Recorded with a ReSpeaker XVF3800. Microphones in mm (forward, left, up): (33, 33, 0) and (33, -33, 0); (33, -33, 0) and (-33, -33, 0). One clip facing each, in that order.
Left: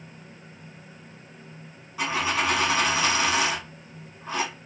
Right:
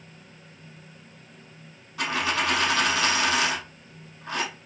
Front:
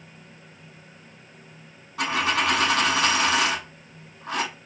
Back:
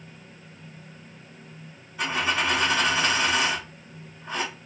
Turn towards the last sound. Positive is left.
turn(degrees=5)